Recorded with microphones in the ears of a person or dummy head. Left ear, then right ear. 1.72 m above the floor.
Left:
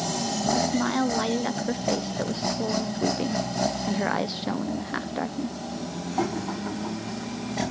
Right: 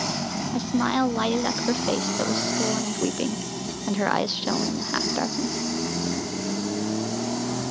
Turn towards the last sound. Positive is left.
turn(degrees=-15)  # may be behind; listen again after turning